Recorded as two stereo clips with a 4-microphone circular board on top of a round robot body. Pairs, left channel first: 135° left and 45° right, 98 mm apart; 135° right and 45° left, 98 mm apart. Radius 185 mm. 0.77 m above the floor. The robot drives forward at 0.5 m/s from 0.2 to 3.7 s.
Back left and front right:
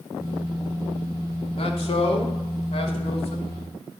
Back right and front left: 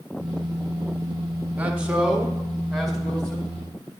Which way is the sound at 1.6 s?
120° left.